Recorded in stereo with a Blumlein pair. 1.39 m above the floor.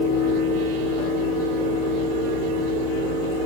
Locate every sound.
0.0 s a fan: 60° right, 1.5 m